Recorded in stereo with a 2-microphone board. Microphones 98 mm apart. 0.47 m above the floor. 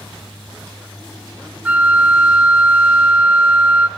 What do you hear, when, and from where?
1.6 s a flute: 15° right (ahead or behind), 0.8 m